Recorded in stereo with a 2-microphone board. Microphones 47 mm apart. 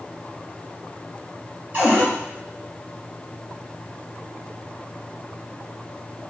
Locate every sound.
1.7 s a cupboard door: 40° right (ahead or behind), 1.7 m